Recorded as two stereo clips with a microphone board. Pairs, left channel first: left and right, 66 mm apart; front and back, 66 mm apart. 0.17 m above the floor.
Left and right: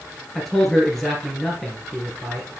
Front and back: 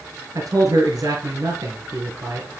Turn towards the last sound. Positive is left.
turn(degrees=180)